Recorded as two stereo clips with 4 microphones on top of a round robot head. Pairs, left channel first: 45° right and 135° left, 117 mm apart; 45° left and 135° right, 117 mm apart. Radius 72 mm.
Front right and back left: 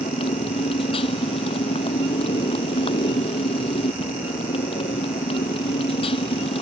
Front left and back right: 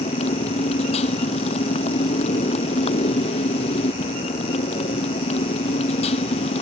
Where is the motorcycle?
5° left.